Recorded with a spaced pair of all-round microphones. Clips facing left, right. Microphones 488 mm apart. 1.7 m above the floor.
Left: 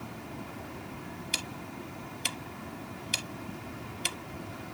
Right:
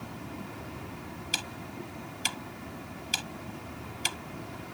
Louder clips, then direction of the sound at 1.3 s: Even; 5° right (ahead or behind).